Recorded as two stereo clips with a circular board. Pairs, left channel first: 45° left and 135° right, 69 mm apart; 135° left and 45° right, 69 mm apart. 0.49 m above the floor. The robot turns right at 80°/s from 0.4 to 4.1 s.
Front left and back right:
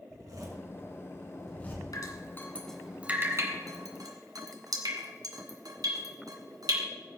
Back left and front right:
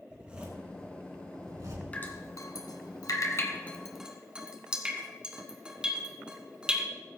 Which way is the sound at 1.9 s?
65° left.